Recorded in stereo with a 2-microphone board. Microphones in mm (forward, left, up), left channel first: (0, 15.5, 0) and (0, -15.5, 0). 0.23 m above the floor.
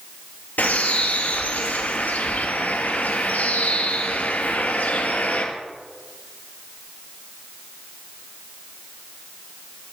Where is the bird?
70° left (ahead or behind), 2.5 m.